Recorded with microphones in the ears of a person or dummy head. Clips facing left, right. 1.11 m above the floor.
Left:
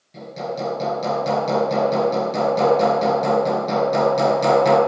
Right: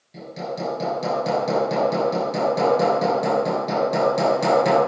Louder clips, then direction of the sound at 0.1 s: Left 2 dB; 5° right (ahead or behind).